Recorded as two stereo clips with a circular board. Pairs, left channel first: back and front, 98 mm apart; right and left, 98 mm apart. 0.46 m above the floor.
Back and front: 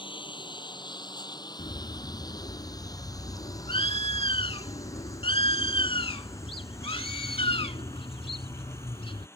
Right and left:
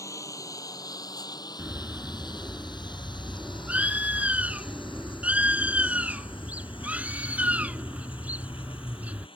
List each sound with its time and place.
0.0 s a lawn mower: 145° right; by 9.4 s 115° right
1.6 s a bird: 165° left